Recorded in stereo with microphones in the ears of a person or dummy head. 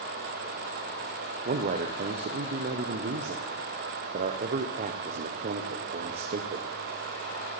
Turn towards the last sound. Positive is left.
turn(degrees=-35)  # may be behind; listen again after turning